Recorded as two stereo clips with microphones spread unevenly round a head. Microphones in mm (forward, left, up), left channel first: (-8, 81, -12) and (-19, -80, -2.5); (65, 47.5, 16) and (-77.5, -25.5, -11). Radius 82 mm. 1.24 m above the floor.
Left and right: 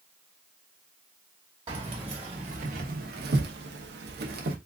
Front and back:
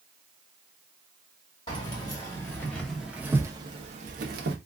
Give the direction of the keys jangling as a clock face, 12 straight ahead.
1 o'clock.